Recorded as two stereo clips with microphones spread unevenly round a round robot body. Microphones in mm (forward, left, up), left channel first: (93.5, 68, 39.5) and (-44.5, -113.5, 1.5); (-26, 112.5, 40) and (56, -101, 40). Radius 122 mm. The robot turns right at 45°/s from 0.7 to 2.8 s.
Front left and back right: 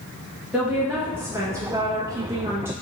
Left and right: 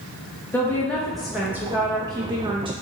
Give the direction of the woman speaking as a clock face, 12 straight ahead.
6 o'clock.